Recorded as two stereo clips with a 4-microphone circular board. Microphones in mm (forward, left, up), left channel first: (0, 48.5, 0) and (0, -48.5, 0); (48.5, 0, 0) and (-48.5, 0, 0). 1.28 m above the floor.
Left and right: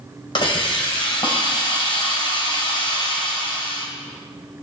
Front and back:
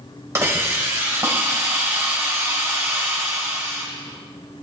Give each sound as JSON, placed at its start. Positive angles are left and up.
{"t": 0.3, "sound": "a hiss", "azimuth_deg": 120, "distance_m": 2.0}